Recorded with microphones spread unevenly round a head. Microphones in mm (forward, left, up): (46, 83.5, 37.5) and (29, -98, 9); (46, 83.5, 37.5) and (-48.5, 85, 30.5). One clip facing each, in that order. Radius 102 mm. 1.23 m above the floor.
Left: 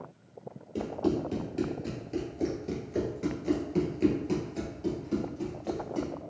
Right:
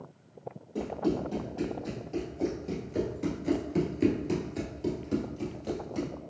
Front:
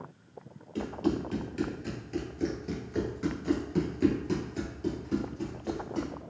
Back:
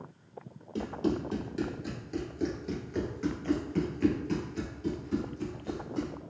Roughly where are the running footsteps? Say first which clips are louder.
Left 1 dB, front 1 dB; behind left.